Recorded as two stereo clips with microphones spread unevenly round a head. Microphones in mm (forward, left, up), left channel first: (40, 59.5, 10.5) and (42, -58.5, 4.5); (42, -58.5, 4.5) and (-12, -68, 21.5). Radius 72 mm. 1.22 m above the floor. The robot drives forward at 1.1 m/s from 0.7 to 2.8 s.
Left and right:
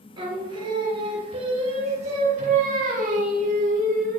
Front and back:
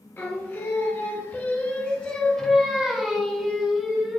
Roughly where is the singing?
Ahead right.